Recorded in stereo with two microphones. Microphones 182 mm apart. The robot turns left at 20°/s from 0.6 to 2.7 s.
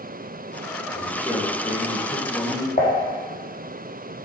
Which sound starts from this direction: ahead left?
A man speaking, at 0.9 s.